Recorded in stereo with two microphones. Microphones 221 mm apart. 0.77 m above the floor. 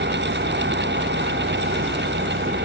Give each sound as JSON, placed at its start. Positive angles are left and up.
{"t": 0.0, "sound": "an engine running", "side_deg": -55}